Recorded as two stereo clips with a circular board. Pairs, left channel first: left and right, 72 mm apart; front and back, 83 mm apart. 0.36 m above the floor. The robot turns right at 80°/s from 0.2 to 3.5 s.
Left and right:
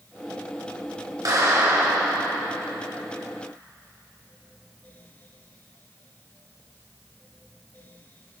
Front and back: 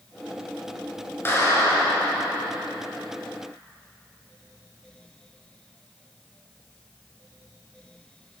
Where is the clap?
60° right, 4 m; by 2.5 s 40° left, 4 m.